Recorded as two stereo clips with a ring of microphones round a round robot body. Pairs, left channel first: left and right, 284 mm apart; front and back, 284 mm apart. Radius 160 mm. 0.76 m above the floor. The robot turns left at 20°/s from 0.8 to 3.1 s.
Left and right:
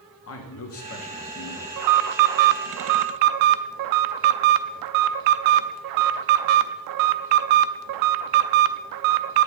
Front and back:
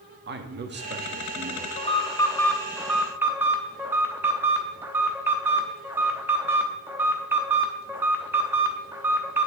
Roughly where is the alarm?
Right.